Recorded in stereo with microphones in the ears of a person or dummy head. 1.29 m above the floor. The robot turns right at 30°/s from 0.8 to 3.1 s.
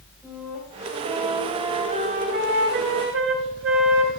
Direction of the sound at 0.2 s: 175° right.